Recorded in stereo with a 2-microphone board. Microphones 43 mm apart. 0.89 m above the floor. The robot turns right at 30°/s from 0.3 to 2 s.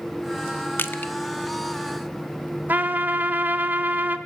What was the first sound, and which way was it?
Crushing, 60° left (ahead or behind).